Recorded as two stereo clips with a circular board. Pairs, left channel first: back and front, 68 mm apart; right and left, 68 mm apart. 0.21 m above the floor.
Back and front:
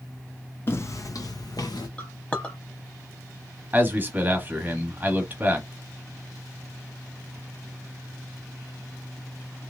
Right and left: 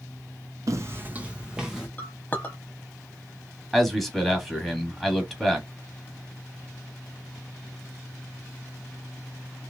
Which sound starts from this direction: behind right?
A clink, at 2.0 s.